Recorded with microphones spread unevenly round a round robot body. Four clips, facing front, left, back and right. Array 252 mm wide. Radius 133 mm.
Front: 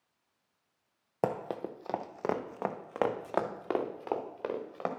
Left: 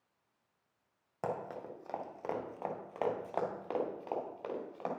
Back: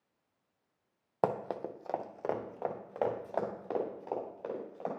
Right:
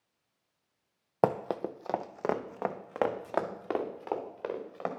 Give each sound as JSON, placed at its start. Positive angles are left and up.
{"t": 1.2, "sound": "running footsteps", "azimuth_deg": -70, "distance_m": 0.6}